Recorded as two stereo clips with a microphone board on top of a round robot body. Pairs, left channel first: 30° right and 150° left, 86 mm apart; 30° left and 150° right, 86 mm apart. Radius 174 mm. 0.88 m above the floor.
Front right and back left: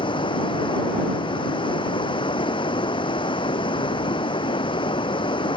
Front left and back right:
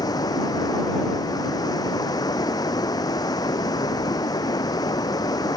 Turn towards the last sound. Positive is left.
turn(degrees=-10)